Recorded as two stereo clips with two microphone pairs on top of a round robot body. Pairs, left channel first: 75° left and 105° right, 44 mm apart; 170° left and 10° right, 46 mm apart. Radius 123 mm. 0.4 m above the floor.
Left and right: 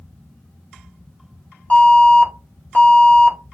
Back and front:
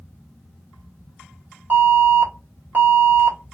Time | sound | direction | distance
1.7 | an alarm | 15° left | 1.9 m